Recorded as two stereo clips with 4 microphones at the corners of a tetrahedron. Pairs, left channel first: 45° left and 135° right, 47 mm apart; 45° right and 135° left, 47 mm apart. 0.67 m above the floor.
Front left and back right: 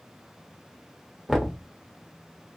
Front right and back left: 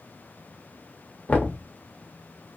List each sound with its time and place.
1.3 s knocking: 50° right, 0.7 m